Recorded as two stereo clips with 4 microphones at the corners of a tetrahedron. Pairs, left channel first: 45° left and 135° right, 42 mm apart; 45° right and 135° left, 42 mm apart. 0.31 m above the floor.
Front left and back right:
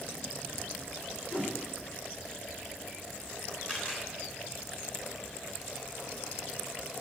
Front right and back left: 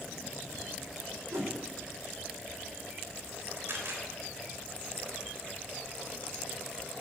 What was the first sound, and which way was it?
A whoosh, 95° left.